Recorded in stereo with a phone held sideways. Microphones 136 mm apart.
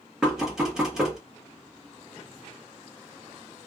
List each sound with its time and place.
0.2 s knocking: 5° right (ahead or behind), 1.4 m